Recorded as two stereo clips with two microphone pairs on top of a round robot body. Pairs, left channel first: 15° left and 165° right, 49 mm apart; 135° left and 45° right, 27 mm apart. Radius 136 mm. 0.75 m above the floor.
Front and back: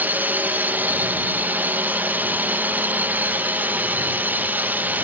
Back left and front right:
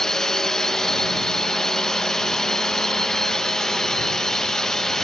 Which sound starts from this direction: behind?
A drone, at 0.0 s.